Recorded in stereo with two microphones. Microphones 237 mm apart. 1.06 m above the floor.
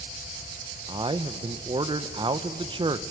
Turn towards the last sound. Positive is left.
turn(degrees=-20)  # may be behind; listen again after turning